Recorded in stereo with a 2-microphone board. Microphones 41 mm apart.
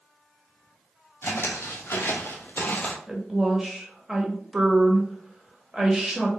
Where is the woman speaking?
15° right (ahead or behind), 0.9 m.